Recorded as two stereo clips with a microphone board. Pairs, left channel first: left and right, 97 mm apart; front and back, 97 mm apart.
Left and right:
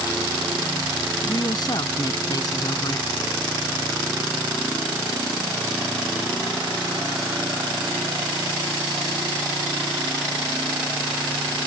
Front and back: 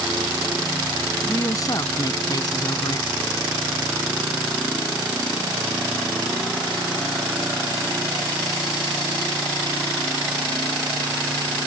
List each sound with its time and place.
1.2 s a woman speaking: 50° left; by 3.2 s 40° left